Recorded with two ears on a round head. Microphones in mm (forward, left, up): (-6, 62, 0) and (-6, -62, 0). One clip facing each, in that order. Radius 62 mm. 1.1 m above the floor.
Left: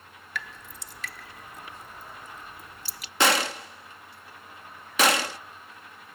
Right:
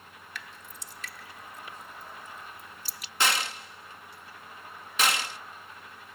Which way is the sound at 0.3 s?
70° left (ahead or behind).